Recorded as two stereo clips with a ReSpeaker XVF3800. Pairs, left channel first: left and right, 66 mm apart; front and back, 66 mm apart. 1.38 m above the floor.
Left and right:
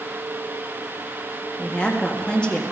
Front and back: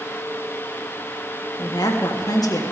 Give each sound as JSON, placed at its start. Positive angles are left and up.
{"t": 1.6, "sound": "a woman speaking", "azimuth_deg": 15, "distance_m": 1.6}